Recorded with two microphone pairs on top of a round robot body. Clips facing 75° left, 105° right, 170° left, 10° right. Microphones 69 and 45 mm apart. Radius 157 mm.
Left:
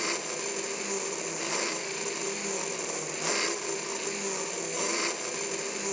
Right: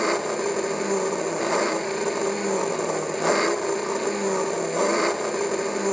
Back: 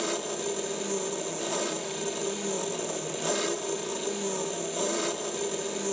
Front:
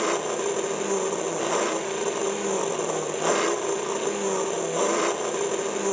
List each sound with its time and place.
0.0 s an engine running: 60° right, 0.7 m